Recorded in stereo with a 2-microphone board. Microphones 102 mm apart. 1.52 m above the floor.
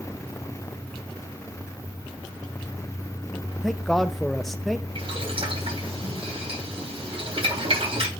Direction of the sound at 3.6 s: 5° left (ahead or behind).